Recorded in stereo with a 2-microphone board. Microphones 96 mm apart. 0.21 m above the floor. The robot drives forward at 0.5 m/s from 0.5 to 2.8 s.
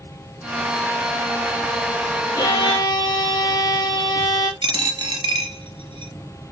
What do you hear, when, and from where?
2.4 s a violin: 45° left (ahead or behind), 1.3 m
4.6 s a dropped coin: 50° right (ahead or behind), 0.9 m